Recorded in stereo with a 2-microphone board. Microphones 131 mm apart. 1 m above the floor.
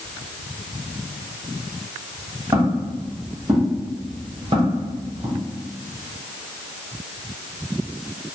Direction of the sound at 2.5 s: 25° right (ahead or behind).